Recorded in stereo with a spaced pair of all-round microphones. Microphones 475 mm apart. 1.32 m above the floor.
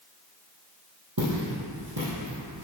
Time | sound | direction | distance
1.2 | footsteps | 50° right (ahead or behind) | 2.5 m